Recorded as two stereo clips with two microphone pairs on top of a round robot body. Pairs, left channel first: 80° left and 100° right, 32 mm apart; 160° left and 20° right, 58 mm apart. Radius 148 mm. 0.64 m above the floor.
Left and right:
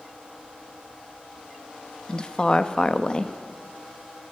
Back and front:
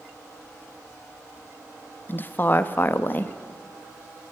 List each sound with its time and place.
2.1 s a woman speaking: 140° left, 1.2 m